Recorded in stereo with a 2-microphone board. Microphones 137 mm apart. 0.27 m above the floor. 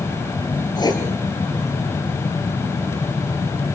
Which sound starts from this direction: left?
Writing, at 0.8 s.